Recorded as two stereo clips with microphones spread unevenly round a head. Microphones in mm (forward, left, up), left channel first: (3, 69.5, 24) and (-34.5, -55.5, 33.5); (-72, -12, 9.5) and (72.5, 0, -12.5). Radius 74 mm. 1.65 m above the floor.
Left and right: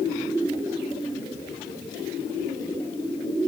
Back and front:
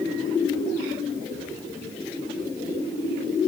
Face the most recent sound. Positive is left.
No sound to turn to.